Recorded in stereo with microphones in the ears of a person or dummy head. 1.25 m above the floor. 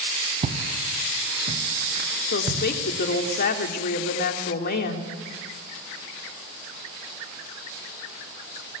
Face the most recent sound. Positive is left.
turn(degrees=55)  # may be behind; listen again after turning